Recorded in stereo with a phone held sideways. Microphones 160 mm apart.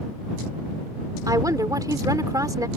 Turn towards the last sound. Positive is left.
turn(degrees=-20)  # may be behind; listen again after turning